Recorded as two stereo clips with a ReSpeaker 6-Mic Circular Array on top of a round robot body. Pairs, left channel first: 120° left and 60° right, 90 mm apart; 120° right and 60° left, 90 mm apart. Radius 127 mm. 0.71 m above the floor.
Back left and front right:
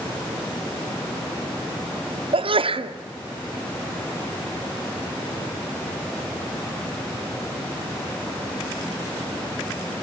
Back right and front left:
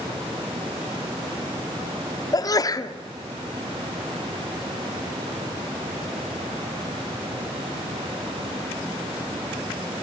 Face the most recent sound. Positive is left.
turn(degrees=-70)